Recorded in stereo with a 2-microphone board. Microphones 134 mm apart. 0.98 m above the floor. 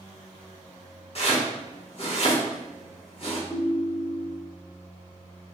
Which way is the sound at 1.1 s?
45° left (ahead or behind).